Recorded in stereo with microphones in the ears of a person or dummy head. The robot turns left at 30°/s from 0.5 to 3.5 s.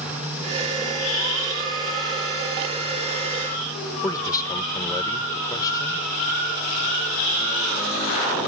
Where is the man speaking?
20° left (ahead or behind).